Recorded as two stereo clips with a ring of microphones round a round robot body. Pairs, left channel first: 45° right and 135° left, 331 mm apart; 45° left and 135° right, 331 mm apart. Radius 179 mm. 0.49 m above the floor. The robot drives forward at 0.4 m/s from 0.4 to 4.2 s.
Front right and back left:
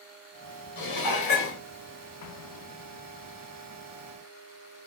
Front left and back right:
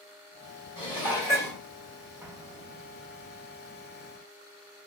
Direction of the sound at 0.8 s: 30° right.